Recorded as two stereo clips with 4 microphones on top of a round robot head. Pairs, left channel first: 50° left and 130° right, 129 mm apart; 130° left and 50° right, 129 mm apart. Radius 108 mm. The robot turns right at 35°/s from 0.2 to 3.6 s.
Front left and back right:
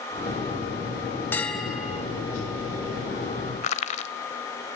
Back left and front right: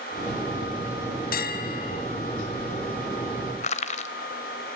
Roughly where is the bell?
Behind left.